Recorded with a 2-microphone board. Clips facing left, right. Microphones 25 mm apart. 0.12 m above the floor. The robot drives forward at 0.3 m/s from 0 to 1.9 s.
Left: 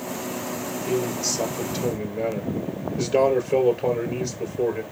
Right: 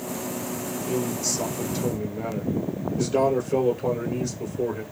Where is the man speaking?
40° left (ahead or behind), 2 m.